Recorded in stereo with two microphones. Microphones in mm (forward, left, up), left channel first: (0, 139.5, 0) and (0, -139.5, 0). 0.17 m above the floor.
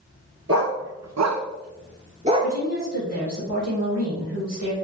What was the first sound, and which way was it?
A dog barking, 55° right (ahead or behind).